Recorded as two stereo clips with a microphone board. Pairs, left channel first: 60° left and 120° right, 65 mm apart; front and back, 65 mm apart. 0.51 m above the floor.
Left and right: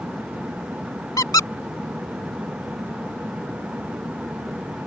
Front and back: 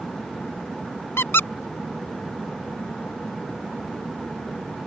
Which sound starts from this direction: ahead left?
A squeak, at 1.2 s.